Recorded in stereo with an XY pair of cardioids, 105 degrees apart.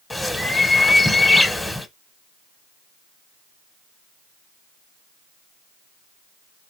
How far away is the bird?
About 0.9 m.